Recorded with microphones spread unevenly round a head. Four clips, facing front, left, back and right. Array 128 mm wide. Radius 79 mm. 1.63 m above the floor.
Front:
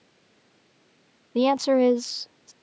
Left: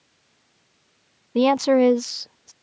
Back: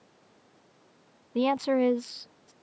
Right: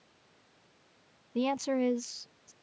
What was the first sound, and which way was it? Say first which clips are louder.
A woman speaking: left 13 dB, front 5 dB; 60° left.